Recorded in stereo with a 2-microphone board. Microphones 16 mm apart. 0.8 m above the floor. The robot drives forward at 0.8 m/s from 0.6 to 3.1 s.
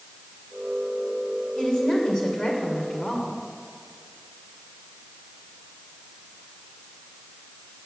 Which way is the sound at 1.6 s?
45° left (ahead or behind).